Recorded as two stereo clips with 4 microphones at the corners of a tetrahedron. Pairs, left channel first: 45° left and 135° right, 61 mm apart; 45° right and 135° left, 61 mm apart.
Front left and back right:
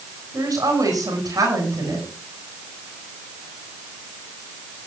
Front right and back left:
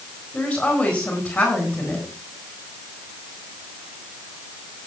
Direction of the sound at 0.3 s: 120° right.